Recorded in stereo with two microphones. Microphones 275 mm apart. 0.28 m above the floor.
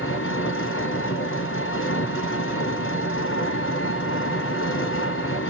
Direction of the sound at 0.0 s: 50° left (ahead or behind).